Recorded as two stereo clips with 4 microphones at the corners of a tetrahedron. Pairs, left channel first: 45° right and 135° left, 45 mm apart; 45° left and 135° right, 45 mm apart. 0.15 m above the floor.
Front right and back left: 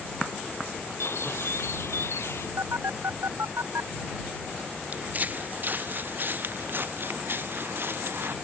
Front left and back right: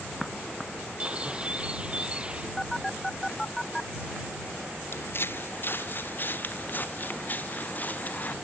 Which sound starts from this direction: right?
A bird, at 1.0 s.